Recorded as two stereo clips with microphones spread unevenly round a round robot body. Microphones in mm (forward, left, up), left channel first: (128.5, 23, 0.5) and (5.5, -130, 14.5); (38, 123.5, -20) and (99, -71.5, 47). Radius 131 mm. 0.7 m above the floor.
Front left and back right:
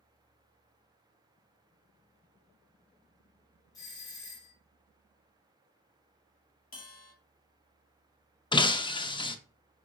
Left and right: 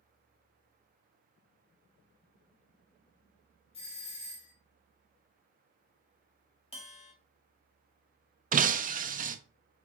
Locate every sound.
3.7 s a doorbell: 115° left, 1.9 m
6.7 s a bell: 85° left, 1.4 m
8.5 s breaking glass: 20° right, 0.6 m